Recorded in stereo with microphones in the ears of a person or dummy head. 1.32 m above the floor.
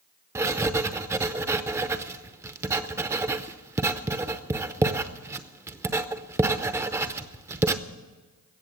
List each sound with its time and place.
0.3 s writing: 15° right (ahead or behind), 0.6 m